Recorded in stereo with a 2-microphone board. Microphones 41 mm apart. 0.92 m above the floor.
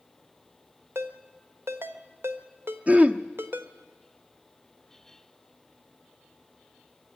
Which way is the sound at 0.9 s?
75° right (ahead or behind).